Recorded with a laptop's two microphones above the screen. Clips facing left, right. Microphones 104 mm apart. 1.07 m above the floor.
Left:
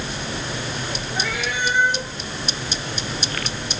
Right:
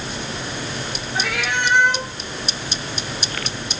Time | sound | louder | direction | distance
1.1 | a cat meowing | right 3 dB | 75° right (ahead or behind) | 4 m